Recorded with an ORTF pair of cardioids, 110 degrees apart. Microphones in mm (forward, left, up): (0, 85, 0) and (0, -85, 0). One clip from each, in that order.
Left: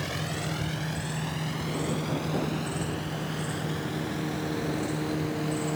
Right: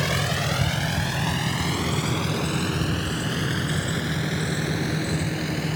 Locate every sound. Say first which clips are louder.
0.0 s a vehicle: right 8 dB; 50° right; by 5.8 s 60° right